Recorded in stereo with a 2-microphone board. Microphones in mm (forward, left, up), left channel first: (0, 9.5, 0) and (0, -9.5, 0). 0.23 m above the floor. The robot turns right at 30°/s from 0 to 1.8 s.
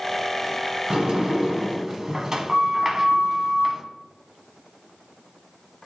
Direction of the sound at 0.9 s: 40° right (ahead or behind).